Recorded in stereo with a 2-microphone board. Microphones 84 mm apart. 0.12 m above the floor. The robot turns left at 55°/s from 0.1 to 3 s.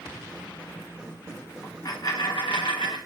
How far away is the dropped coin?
About 1.6 m.